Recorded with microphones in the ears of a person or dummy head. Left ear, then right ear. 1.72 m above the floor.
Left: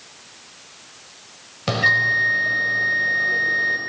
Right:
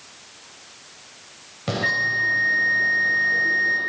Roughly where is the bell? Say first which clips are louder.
Left 5 dB; left.